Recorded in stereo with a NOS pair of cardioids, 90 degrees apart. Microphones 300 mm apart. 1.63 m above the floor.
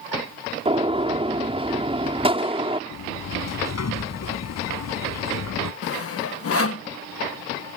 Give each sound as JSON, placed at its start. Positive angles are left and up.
{"t": 0.7, "sound": "a gunshot", "azimuth_deg": -20}
{"t": 2.9, "sound": "a sliding door", "azimuth_deg": 60}
{"t": 5.8, "sound": "sawing", "azimuth_deg": 50}